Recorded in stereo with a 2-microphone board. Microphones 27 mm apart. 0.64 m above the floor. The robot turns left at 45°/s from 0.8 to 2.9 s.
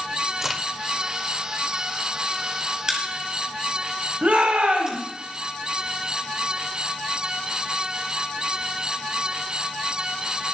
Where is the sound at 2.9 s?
25° right (ahead or behind), 9.5 m.